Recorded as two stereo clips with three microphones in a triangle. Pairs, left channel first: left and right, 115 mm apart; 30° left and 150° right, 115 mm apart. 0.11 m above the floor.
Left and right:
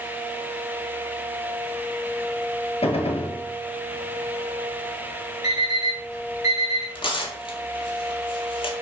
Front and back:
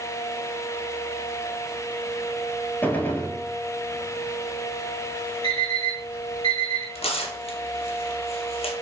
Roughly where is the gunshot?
Left.